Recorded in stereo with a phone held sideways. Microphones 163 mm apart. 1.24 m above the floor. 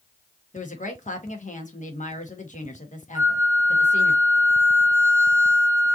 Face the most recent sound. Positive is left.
turn(degrees=-15)  # may be behind; listen again after turning